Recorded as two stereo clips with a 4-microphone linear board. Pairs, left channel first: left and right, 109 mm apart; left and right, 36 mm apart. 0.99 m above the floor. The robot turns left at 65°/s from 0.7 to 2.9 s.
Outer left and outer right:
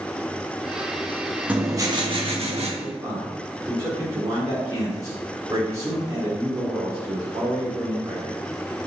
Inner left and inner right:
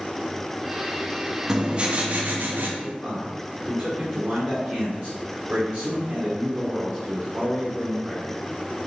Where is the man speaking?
40° right (ahead or behind), 2 m; by 8.4 s 35° right (ahead or behind), 2 m.